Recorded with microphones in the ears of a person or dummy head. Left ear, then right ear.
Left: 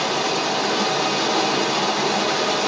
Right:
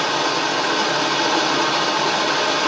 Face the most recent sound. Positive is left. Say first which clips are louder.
# right 2 dB
turn(degrees=-35)  # may be behind; listen again after turning